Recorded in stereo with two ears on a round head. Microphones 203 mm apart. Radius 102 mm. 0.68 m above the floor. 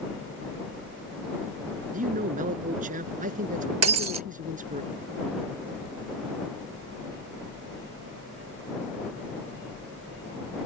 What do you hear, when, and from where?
1.9 s a man speaking: 35° right (ahead or behind)
3.8 s breaking glass: 75° right (ahead or behind)